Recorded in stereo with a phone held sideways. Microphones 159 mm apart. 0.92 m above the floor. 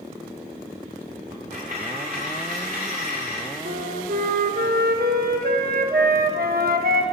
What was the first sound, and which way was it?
A dropped coin, 65° right (ahead or behind).